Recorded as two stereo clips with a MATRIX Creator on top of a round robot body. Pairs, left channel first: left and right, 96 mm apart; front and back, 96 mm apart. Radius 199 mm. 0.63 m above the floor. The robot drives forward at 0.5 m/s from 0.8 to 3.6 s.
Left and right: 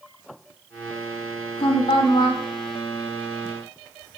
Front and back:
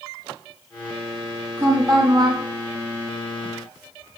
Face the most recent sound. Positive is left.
turn(degrees=155)